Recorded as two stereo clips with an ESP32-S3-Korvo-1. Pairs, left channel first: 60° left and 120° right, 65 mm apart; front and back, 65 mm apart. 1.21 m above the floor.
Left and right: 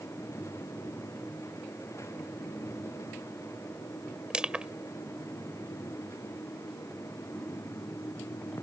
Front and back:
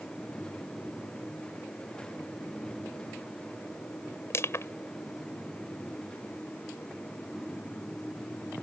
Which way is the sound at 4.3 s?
45° right.